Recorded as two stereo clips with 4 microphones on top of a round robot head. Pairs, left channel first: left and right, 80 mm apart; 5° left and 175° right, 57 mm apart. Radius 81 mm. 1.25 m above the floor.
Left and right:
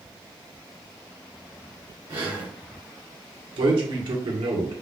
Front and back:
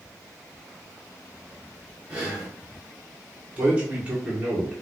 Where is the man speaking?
105° right, 1.3 m.